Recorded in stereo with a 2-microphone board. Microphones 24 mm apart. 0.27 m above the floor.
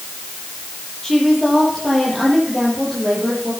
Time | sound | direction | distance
1.0 | a woman speaking | 15° left (ahead or behind) | 7.5 m